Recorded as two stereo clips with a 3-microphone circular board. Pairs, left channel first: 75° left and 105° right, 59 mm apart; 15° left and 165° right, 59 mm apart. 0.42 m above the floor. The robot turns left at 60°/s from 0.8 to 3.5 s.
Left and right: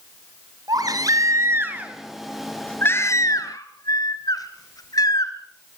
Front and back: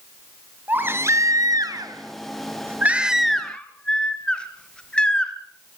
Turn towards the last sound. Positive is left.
turn(degrees=90)